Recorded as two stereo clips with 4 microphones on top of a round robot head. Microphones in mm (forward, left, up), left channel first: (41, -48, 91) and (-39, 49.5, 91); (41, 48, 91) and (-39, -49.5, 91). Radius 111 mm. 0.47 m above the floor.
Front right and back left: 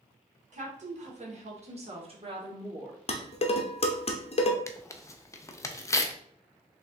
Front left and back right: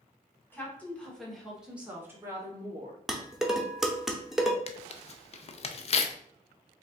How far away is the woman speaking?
About 1.9 m.